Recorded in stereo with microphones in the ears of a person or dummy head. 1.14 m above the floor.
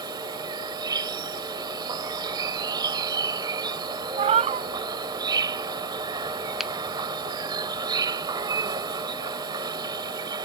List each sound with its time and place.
0.0 s an insect: 20° right (ahead or behind)
4.2 s a cat meowing: 35° right (ahead or behind)
6.6 s a finger snap: centre (ahead or behind)